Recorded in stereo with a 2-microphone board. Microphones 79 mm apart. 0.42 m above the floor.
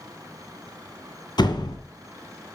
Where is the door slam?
70° left (ahead or behind), 2.5 m.